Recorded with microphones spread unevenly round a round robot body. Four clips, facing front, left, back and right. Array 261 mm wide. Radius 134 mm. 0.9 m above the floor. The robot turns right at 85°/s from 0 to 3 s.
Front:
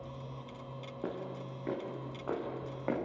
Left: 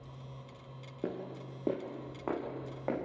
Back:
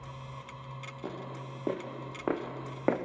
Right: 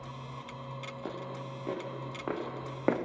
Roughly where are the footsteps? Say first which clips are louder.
Left 3 dB, front 1 dB; left.